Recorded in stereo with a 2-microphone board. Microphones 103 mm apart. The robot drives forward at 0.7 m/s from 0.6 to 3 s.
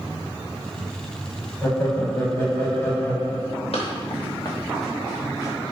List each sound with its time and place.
1.6 s laughter: 25° left (ahead or behind), 1.2 m; by 3.7 s 20° left (ahead or behind), 1.3 m
3.7 s running footsteps: 75° left (ahead or behind), 1.6 m; by 5.6 s 30° right (ahead or behind), 2 m